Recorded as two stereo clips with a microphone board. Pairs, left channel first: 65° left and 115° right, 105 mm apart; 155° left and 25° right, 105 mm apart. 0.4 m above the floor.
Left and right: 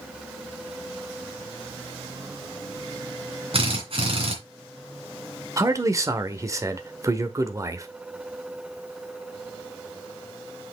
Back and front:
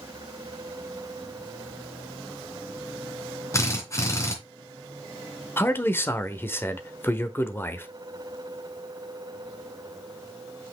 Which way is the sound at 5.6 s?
150° right.